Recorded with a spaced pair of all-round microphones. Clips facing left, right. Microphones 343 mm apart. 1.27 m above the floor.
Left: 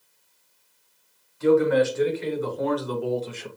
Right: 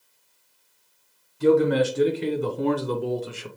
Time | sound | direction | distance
1.4 | a man speaking | 45° right (ahead or behind) | 1.3 m